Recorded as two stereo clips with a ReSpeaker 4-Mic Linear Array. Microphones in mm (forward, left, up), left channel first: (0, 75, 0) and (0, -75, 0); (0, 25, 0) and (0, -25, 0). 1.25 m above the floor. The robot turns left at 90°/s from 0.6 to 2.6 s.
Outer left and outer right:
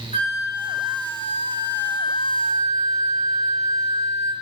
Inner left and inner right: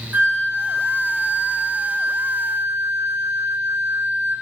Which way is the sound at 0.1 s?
55° right.